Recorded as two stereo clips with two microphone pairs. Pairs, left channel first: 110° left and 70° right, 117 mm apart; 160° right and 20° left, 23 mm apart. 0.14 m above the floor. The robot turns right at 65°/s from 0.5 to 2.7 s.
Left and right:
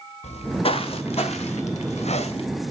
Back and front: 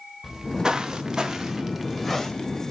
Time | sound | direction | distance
0.2 | footsteps | 95° left | 0.9 m